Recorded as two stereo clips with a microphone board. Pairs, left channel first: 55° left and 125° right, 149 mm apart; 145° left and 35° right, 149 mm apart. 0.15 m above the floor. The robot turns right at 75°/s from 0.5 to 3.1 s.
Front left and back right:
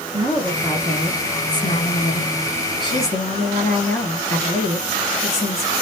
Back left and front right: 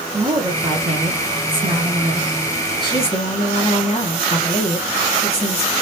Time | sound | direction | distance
0.1 | a woman speaking | 75° right | 2 m